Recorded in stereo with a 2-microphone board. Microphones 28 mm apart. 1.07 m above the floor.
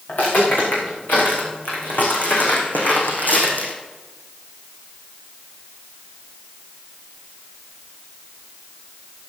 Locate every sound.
0.1 s footsteps: 60° left (ahead or behind), 6.5 m; by 3.7 s 70° left (ahead or behind), 3.5 m